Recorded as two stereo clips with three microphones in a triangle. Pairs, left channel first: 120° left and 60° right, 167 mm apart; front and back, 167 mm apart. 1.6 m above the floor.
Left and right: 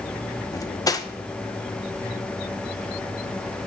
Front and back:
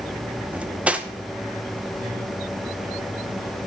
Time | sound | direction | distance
0.5 | cutlery clinking | 110° left | 0.7 m